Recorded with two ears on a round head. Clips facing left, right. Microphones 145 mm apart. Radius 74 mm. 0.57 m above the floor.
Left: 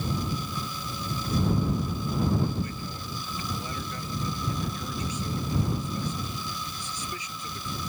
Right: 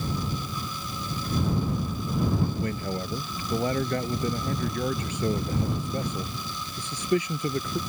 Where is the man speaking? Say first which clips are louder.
Right 5 dB; 50° right (ahead or behind).